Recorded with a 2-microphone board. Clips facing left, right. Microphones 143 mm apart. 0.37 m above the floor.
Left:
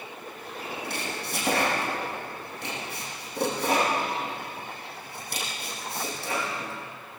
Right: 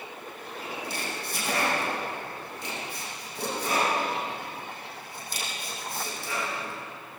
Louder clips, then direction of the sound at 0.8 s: Left 1 dB; 60° left (ahead or behind).